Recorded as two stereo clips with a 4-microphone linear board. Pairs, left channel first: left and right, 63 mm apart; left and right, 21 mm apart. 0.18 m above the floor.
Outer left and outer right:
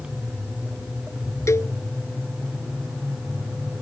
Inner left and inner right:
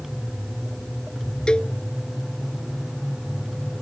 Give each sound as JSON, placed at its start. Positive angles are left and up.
{"t": 1.5, "sound": "a cowbell", "side_deg": 45}